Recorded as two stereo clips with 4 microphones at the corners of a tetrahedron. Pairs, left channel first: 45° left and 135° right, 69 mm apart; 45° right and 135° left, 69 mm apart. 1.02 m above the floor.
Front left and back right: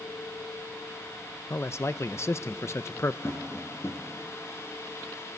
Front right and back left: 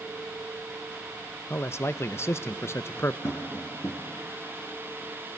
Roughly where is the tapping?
Ahead.